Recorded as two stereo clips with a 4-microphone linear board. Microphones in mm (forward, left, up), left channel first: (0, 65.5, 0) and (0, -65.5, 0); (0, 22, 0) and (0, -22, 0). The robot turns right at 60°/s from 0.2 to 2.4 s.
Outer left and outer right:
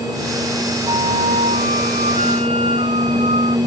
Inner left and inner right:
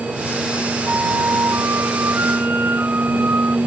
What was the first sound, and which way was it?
A flute, 145° right.